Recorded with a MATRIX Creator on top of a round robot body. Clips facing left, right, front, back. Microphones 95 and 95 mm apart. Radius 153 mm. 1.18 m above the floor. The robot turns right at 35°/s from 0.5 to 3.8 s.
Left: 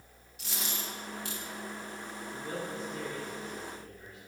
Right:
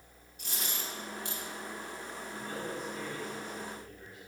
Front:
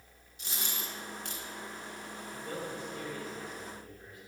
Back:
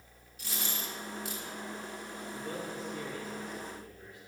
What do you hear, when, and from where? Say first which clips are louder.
0.4 s a dropped coin: left 1 dB, back 1 dB; 70° left, 1.6 m; by 1.4 s 100° left, 1.6 m
2.3 s a man speaking: left 1 dB, even; 140° left, 4 m; by 4.2 s 165° right, 4 m